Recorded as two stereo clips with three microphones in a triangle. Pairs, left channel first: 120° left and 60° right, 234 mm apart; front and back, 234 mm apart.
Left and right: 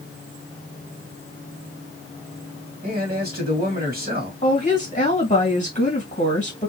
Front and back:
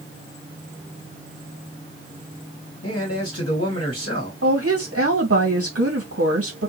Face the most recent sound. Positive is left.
turn(degrees=175)